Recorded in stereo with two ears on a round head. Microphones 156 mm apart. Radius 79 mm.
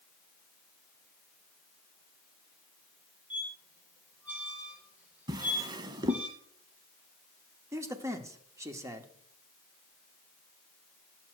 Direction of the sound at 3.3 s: 10° right (ahead or behind).